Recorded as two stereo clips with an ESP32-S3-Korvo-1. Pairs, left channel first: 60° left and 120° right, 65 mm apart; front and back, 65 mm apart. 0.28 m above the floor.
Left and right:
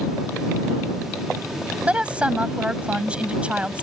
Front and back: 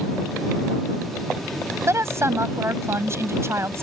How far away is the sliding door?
I don't hear a sliding door.